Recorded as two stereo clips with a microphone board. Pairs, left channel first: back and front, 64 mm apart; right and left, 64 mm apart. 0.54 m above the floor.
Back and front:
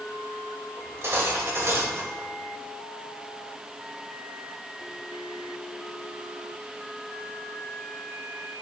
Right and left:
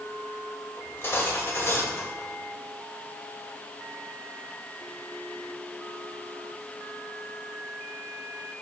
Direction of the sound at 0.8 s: 45° right.